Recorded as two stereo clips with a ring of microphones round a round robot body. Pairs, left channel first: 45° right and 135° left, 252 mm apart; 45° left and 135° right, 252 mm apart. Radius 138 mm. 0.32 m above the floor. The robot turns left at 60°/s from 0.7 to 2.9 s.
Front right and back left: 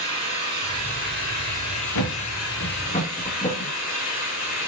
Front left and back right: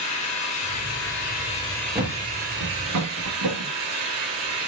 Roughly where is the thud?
Ahead right.